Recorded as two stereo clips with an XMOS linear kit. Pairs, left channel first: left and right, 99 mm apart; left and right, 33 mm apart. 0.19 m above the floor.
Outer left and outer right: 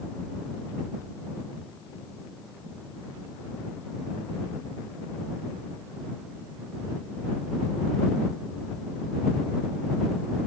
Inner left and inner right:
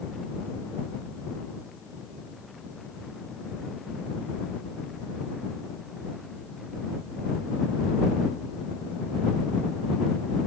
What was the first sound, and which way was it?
Only background noise.